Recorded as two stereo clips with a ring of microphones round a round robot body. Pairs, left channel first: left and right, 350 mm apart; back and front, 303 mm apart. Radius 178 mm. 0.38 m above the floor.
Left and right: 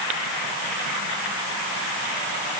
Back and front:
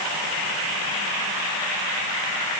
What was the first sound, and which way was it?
Only background noise.